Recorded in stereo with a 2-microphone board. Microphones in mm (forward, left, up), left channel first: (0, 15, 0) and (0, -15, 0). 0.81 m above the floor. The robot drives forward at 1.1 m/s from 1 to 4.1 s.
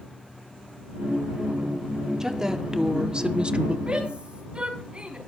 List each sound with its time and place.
2.2 s a woman speaking: 15° right (ahead or behind), 2 m; by 3.8 s 40° right (ahead or behind), 1.0 m
3.9 s a shout: 35° right (ahead or behind), 6 m